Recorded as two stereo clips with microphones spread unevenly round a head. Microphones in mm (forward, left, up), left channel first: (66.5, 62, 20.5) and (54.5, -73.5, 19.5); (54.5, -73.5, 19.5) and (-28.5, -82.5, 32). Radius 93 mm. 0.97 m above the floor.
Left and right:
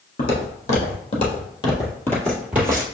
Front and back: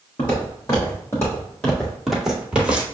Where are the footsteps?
75° left, 2.0 m; by 2.8 s 140° right, 1.1 m.